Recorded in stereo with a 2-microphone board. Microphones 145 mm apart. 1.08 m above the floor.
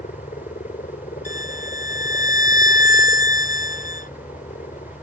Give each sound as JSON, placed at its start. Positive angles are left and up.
{"t": 0.0, "sound": "a helicopter", "side_deg": 65}
{"t": 1.2, "sound": "a violin", "side_deg": 65}